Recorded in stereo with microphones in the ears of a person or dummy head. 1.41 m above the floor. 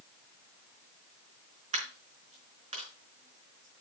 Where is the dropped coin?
35° right (ahead or behind), 4 m.